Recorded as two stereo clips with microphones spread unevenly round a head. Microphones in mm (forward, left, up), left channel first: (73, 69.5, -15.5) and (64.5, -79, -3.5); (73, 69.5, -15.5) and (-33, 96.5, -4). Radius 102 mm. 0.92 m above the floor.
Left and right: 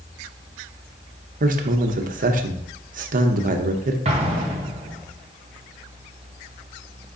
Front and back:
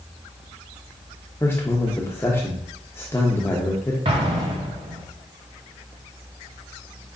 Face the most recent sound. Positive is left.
turn(degrees=-145)